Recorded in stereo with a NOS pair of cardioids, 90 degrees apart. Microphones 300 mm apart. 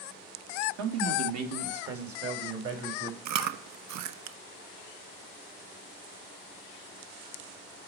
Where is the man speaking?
65° right, 2 m; by 3.1 s 40° right, 3.5 m.